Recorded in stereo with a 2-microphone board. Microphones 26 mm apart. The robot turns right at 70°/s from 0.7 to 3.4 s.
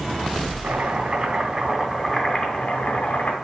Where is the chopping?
80° right, 2.5 m; by 3.3 s 105° left, 2.5 m.